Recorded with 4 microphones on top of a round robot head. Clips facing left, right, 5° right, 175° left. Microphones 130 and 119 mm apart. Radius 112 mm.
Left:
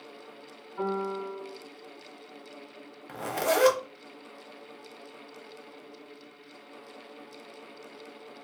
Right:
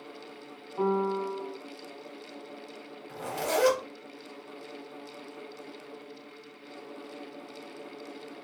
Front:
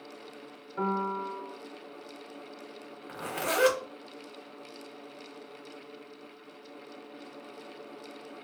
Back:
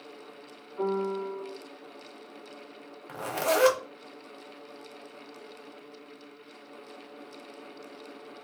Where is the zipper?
120° left, 0.7 m.